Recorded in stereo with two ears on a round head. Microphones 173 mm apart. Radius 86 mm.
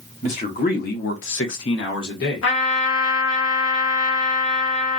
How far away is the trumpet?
About 1.0 m.